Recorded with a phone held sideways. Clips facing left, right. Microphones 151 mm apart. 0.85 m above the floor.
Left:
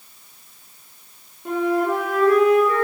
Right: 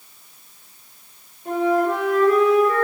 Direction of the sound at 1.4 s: 70° left (ahead or behind).